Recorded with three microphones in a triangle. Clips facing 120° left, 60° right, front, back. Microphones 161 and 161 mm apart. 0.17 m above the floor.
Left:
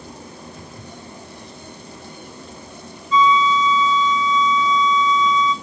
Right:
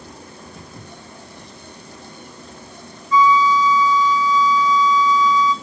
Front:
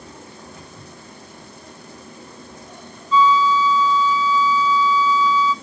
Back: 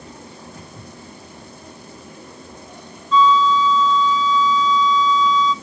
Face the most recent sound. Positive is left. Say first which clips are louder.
# right 1 dB, back 1 dB
turn(degrees=75)